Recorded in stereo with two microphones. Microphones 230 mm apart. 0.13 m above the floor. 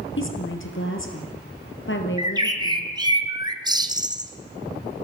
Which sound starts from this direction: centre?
A bird, at 2.2 s.